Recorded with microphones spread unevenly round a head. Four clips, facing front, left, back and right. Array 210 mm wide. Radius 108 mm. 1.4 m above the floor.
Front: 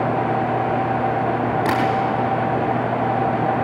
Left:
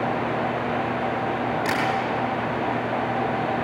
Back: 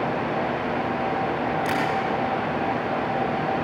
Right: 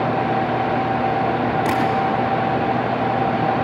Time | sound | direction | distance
1.6 | tapping | 20° right | 5.5 m